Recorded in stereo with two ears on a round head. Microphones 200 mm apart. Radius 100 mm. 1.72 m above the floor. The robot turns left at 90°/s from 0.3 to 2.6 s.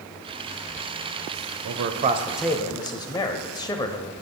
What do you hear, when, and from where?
1.6 s a man speaking: 110° right, 0.5 m; by 4.1 s 165° left, 0.5 m